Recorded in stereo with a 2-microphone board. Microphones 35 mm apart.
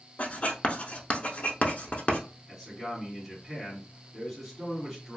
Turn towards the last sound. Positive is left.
turn(degrees=10)  # may be behind; listen again after turning